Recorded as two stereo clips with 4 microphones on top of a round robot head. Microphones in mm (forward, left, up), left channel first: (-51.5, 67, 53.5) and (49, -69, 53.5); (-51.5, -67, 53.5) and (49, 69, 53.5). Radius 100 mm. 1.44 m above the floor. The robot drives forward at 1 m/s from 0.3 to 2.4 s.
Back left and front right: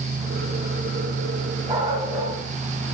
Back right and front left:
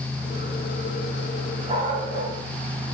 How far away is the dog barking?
About 7 m.